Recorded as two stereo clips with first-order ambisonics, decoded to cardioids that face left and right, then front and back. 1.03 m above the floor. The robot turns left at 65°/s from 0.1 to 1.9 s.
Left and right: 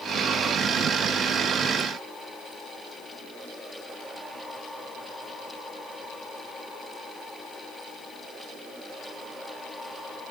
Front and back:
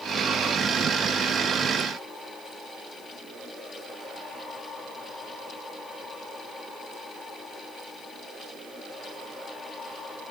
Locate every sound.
Only background noise.